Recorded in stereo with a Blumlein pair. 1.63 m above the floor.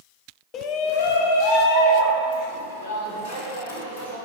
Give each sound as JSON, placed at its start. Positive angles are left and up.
{"t": 0.5, "sound": "a shout", "azimuth_deg": 30, "distance_m": 0.8}